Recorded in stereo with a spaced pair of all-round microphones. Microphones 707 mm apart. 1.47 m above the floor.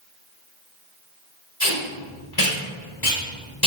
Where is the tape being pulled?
30° left (ahead or behind), 1.4 m.